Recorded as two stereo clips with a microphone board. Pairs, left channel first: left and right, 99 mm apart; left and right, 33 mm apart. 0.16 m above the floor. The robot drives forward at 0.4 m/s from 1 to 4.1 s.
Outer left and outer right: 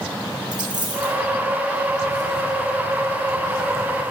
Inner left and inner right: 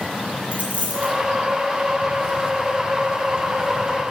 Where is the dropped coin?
45° right (ahead or behind), 2 m.